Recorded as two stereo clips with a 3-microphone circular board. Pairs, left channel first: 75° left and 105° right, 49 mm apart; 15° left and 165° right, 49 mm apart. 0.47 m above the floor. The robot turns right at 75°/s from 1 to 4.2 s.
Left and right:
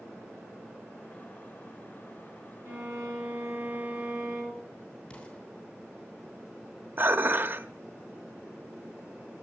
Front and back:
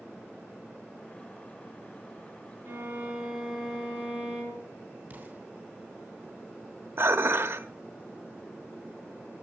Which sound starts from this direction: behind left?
An explosion, at 5.1 s.